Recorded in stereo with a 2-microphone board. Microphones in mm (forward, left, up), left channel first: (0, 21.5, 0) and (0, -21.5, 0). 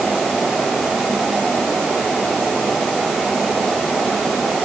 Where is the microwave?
I don't hear a microwave.